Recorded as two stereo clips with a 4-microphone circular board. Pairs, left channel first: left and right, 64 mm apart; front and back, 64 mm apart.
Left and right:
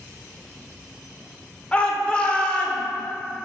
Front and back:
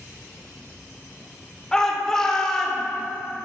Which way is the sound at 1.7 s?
60° left.